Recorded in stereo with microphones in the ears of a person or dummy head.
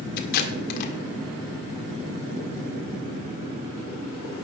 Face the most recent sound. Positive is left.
turn(degrees=45)  # may be behind; listen again after turning